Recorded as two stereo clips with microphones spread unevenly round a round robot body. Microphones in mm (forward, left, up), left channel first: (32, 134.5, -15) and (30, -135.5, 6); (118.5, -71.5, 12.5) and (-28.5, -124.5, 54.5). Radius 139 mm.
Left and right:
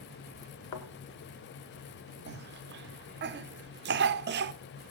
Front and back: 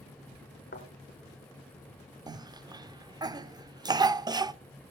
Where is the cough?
85° right, 0.7 m.